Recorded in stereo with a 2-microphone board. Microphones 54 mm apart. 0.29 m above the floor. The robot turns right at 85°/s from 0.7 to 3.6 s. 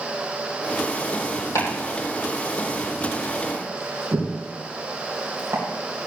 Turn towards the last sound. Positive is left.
turn(degrees=-65)  # may be behind; listen again after turning